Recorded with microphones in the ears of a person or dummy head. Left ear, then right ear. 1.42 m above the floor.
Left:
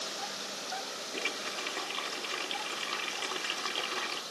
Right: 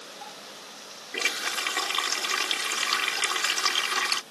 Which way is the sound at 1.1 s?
55° right (ahead or behind).